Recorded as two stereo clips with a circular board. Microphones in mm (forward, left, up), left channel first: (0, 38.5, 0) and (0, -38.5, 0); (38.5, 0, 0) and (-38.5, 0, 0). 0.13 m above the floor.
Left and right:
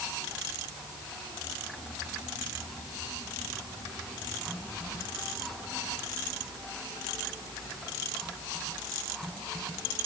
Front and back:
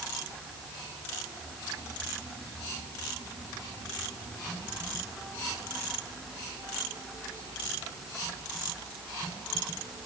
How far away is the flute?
No flute in this recording.